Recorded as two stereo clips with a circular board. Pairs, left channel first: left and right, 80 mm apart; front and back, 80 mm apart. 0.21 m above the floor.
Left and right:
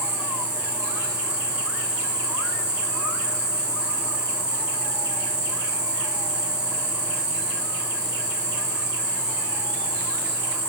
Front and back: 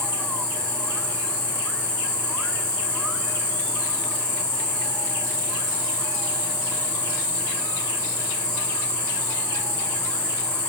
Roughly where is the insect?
Behind right.